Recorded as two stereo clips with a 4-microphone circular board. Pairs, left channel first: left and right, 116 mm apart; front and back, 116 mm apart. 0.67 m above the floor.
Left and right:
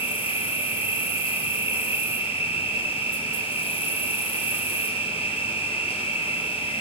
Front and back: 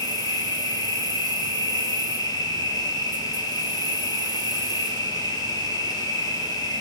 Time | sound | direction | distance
0.0 | an insect | 55° left | 2.5 m